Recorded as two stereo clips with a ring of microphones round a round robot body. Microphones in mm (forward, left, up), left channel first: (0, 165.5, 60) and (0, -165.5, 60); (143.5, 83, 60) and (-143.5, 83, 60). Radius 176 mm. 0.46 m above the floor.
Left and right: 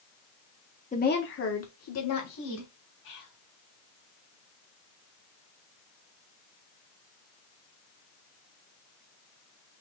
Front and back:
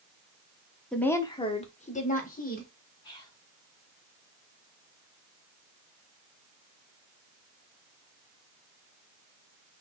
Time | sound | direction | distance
0.9 | a woman speaking | 85° left | 0.9 m
3.0 | whispering | 75° left | 3 m